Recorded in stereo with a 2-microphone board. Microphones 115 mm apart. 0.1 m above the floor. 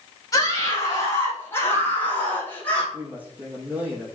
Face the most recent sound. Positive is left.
turn(degrees=-10)  # may be behind; listen again after turning